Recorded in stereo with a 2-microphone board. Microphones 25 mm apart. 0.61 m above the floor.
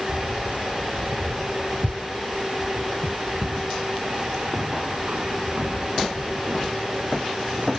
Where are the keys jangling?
65° right (ahead or behind); by 7.7 s 80° right.